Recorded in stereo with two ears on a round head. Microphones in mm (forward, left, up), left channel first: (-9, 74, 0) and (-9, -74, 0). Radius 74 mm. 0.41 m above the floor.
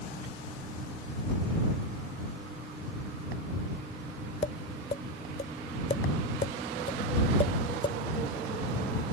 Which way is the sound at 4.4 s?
35° left (ahead or behind).